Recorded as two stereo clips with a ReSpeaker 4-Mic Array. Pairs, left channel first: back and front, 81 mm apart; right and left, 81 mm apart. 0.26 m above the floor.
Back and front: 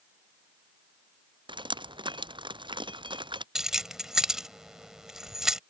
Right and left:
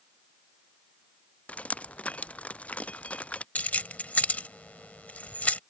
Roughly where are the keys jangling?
Right.